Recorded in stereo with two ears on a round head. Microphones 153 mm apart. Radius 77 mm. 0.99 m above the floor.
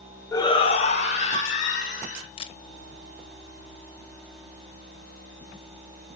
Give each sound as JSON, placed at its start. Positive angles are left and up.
{"t": 0.3, "sound": "a shout", "side_deg": 20, "distance_m": 0.7}
{"t": 2.4, "sound": "a camera shutter", "side_deg": 35, "distance_m": 0.6}